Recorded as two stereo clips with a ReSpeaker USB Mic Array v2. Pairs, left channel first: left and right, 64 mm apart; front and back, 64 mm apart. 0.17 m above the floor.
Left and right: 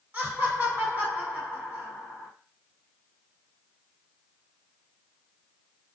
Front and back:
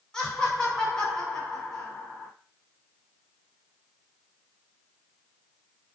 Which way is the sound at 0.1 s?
65° right.